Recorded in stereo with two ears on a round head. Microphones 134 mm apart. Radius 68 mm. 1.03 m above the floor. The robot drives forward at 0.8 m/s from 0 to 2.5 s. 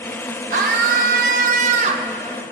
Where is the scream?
55° right (ahead or behind), 1.1 m; by 2.1 s 45° right (ahead or behind), 1.3 m.